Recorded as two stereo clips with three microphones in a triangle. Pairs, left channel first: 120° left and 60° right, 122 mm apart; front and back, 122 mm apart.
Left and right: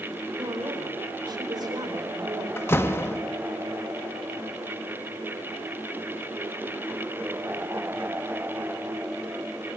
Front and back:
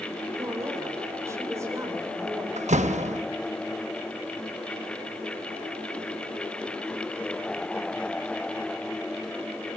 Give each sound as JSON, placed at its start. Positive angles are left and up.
{"t": 0.3, "sound": "a woman speaking", "azimuth_deg": -115, "distance_m": 4.0}
{"t": 2.6, "sound": "a door slam", "azimuth_deg": -170, "distance_m": 1.1}